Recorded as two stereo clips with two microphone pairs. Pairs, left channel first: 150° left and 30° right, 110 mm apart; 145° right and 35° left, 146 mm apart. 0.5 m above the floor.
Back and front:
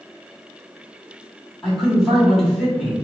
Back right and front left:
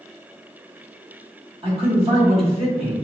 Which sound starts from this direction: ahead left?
A man speaking, at 1.6 s.